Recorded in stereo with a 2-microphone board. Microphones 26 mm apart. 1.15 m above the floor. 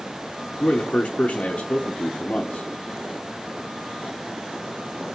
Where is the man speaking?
60° left (ahead or behind), 0.6 m.